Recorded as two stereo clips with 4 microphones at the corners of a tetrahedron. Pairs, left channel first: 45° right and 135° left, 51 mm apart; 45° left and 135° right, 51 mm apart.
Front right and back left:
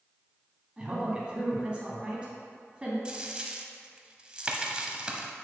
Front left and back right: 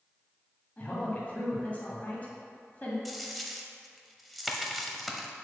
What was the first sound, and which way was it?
A woman speaking, 80° left.